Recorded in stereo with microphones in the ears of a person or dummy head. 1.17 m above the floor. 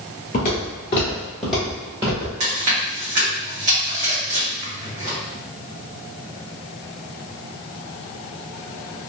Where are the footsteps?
45° left (ahead or behind), 1.5 m; by 2.3 s 30° right (ahead or behind), 1.3 m.